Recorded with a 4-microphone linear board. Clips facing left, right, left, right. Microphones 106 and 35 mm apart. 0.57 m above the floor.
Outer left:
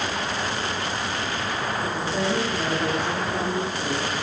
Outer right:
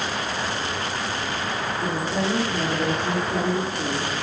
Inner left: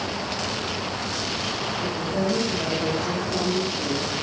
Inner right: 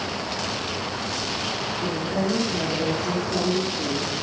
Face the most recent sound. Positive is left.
turn(degrees=-60)  # may be behind; listen again after turning